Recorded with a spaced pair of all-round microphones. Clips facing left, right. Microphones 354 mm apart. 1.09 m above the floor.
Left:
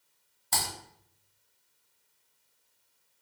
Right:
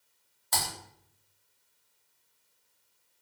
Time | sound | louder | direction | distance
0.5 | typing on a keyboard | even | 40° left (ahead or behind) | 0.9 m